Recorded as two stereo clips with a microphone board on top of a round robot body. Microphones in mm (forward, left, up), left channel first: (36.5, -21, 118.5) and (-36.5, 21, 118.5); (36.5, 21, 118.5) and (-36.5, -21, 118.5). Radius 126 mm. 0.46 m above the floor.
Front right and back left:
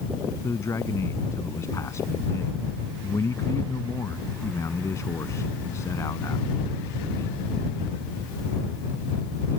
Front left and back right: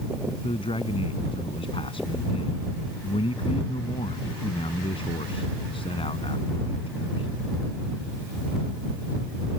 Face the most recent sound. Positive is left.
turn(degrees=30)